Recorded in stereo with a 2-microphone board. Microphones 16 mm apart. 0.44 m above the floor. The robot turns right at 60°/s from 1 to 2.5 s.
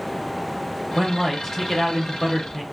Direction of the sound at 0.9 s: 10° left (ahead or behind).